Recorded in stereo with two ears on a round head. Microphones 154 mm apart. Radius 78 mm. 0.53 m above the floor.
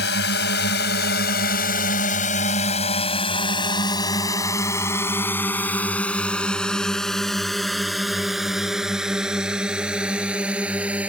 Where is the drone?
70° left (ahead or behind); by 11.1 s 10° right (ahead or behind).